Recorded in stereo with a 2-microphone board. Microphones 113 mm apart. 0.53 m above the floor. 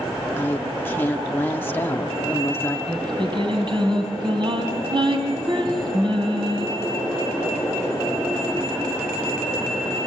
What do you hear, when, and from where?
0.4 s a woman speaking: 20° left (ahead or behind), 0.7 m
2.9 s singing: 45° right (ahead or behind), 3.5 m